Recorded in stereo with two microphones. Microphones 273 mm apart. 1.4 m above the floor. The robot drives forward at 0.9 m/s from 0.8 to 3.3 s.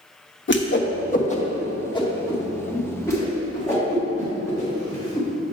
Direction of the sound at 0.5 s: 45° left (ahead or behind).